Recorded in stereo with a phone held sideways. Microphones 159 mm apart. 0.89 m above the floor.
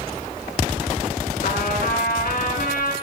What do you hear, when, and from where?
1.4 s a trumpet: 70° left (ahead or behind), 2 m